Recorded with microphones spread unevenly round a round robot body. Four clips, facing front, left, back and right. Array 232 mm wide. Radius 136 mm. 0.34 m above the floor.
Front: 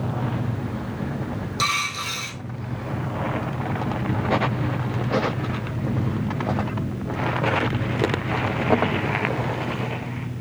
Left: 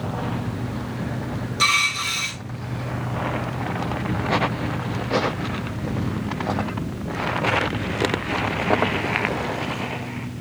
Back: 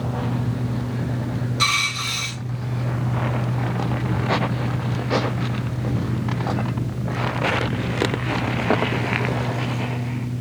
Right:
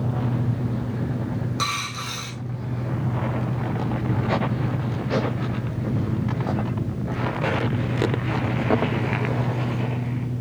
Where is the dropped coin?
35° right, 3 m.